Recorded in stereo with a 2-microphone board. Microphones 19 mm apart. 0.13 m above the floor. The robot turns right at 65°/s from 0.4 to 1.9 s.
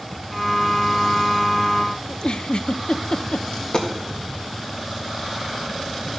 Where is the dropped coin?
40° left (ahead or behind), 1.9 m.